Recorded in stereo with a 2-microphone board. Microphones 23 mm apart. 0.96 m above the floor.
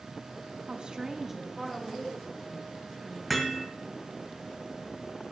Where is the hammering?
Centre (ahead or behind), 1.8 m.